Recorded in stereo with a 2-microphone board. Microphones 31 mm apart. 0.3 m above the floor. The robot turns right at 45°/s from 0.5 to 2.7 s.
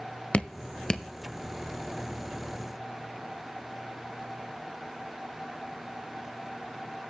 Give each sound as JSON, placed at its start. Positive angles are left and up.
{"t": 0.3, "sound": "dripping", "side_deg": 35, "distance_m": 0.6}